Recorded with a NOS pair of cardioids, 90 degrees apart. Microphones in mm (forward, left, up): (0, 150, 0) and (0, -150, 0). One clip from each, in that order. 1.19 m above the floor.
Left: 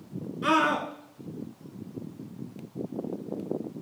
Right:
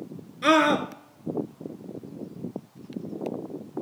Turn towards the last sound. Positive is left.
turn(degrees=-35)